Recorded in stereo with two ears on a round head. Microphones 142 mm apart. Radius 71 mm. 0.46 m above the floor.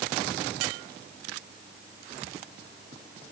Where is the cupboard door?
No cupboard door in this recording.